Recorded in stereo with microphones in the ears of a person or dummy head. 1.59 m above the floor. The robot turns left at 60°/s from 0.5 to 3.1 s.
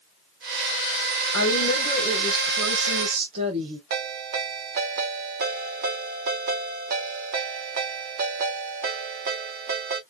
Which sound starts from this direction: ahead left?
A woman speaking, at 1.3 s.